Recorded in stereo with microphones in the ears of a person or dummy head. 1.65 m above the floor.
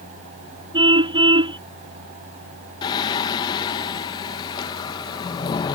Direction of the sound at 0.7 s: 30° right (ahead or behind).